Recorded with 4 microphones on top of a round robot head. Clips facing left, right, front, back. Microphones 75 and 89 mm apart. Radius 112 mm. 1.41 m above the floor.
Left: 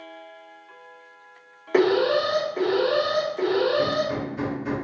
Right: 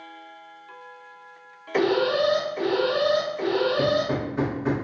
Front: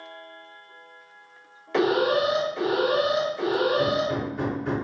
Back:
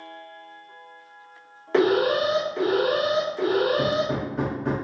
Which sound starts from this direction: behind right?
Hammering, at 3.8 s.